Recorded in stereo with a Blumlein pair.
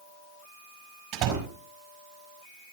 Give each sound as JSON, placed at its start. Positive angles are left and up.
{"t": 1.1, "sound": "a door slam", "azimuth_deg": -45, "distance_m": 5.0}